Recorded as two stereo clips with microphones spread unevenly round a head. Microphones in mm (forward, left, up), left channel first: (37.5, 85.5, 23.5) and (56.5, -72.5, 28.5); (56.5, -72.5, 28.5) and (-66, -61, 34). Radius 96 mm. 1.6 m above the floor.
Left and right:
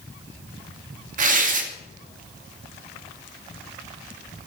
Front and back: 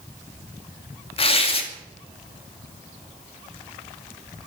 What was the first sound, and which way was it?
Tearing paper, 45° right.